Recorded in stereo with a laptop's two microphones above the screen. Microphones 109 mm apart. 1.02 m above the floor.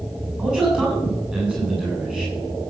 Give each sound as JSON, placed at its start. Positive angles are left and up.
{"t": 0.4, "sound": "a man speaking", "side_deg": -10, "distance_m": 7.5}